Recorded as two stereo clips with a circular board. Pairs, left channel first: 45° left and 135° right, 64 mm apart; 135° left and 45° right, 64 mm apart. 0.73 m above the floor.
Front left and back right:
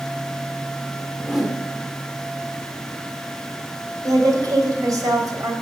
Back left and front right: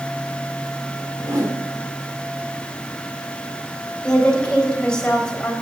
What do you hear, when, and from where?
1.2 s a whoosh: 50° right, 1.8 m
4.0 s a woman speaking: 145° right, 3 m